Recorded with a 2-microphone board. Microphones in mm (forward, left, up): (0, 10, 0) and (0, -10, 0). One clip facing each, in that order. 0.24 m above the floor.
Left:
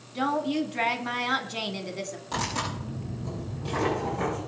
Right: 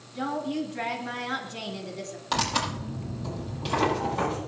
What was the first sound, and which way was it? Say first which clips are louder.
A woman speaking: left 3 dB; 30° left (ahead or behind).